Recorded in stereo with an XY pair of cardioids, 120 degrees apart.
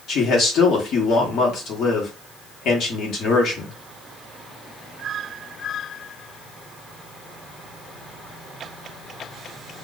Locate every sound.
0.1 s a man speaking: 60° left, 1.3 m